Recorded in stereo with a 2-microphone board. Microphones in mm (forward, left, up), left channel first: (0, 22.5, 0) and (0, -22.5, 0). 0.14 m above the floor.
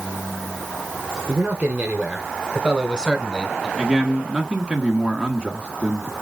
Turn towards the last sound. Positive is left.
turn(degrees=-20)  # may be behind; listen again after turning